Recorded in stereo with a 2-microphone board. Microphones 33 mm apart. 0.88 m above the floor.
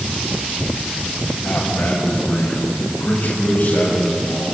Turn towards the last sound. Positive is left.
turn(degrees=35)  # may be behind; listen again after turning